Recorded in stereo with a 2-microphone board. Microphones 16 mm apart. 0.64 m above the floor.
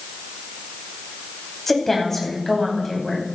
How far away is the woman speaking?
About 5 m.